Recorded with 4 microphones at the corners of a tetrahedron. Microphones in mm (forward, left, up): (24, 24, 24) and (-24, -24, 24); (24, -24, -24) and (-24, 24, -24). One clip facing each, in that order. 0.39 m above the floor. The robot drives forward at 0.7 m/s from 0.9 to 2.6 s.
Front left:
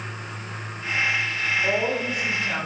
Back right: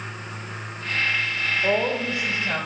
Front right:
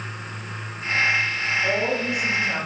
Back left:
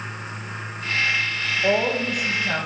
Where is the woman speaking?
165° left, 1.3 m; by 2.7 s 170° left, 1.8 m.